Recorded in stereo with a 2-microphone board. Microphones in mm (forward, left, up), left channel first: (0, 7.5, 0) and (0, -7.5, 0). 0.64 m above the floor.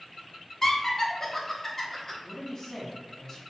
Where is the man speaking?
35° left (ahead or behind), 1.4 m.